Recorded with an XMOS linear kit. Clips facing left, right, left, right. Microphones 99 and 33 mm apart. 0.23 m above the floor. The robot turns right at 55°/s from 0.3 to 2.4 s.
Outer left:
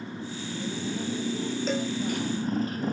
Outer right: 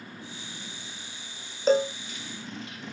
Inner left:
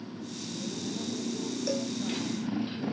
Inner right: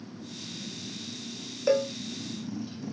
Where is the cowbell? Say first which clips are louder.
Outer right 10 dB, inner right 9 dB; 40° right (ahead or behind); by 1.9 s 25° right (ahead or behind).